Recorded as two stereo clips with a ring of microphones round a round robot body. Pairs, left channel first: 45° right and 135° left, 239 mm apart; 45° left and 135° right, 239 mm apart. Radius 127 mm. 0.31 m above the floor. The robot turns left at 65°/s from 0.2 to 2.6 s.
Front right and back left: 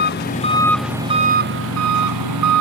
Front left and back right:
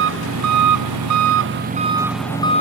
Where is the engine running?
95° right; by 2.6 s 110° left.